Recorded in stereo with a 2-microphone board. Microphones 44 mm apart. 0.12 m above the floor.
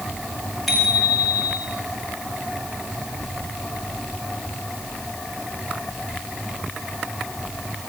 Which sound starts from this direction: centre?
A bicycle bell, at 0.7 s.